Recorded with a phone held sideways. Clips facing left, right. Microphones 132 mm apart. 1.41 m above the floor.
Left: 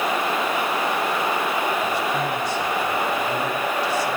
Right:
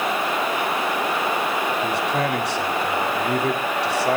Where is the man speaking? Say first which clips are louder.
Right 1 dB; 75° right (ahead or behind), 4 m.